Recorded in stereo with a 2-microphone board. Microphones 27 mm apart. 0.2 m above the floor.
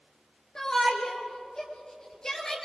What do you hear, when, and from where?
0.6 s a shout: 25° left (ahead or behind), 3 m